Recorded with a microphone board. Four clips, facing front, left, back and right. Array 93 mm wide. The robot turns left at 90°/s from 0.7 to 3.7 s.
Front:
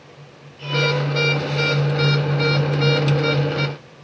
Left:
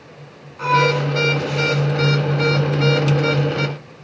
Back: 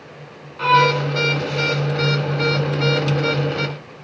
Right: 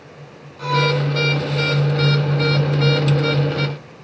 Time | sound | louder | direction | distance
0.6 | a violin | left 3 dB, back 7 dB | 155° left | 3 m